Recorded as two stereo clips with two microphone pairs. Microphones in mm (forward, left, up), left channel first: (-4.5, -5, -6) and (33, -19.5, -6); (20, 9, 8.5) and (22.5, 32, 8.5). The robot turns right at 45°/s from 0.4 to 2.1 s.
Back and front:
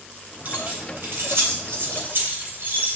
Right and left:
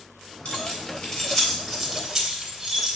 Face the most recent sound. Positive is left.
turn(degrees=5)